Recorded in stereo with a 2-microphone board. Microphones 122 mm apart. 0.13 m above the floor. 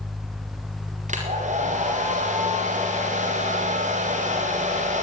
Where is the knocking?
No knocking in this recording.